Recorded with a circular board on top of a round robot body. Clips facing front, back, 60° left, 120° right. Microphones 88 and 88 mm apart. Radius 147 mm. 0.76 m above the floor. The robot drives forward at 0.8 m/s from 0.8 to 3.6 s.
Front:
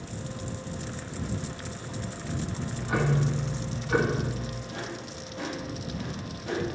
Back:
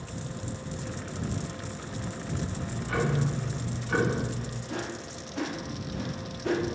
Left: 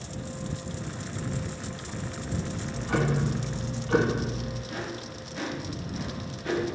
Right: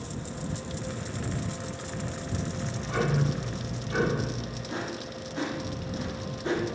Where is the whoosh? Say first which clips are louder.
Back 2 dB, right 1 dB; straight behind, 1.6 m.